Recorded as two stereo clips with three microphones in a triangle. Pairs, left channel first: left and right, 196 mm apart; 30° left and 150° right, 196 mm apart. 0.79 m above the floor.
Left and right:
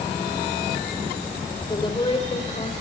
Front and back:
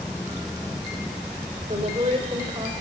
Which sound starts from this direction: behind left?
A woman speaking, at 1.7 s.